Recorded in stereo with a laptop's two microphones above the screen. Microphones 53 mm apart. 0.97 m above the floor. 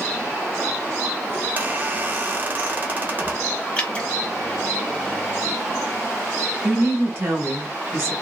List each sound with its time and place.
1.4 s a squeak: 35° right (ahead or behind), 0.6 m
3.8 s dripping: 20° left (ahead or behind), 1.1 m
6.6 s a woman speaking: 50° right (ahead or behind), 1.4 m